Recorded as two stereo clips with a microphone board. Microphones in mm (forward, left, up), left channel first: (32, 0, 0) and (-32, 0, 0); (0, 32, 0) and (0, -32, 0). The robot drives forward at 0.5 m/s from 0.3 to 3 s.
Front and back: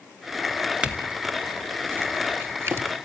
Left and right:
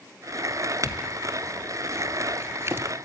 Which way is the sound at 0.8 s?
105° right.